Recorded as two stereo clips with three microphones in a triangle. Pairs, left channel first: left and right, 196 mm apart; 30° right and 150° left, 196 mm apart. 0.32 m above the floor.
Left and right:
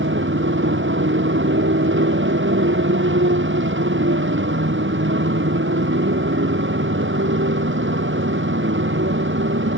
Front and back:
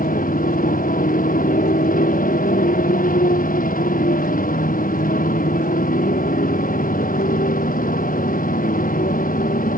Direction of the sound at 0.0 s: 75° right.